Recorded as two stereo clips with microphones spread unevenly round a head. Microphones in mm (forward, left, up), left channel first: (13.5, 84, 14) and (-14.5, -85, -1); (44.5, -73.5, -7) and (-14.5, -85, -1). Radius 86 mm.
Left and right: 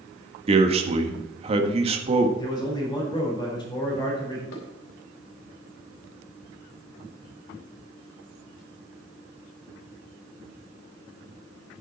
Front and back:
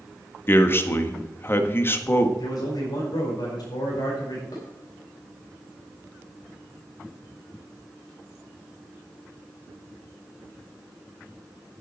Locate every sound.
0.5 s a man speaking: 40° right, 1.4 m
2.4 s a man speaking: 15° left, 4.5 m
4.5 s dishes clattering: 70° left, 3 m